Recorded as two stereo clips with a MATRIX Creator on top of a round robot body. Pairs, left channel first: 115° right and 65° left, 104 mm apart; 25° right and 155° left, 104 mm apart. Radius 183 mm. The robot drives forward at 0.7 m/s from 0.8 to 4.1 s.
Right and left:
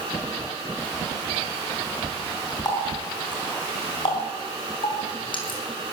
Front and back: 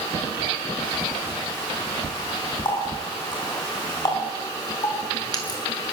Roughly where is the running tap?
Ahead right.